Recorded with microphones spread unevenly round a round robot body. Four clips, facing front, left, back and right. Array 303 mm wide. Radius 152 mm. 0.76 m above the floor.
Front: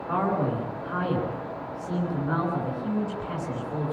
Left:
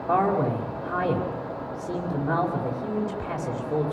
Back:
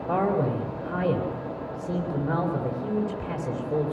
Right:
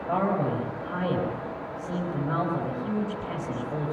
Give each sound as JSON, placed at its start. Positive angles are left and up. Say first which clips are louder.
{"t": 0.1, "sound": "a man speaking", "louder": "left 3 dB, back 1 dB", "azimuth_deg": 155, "distance_m": 4.5}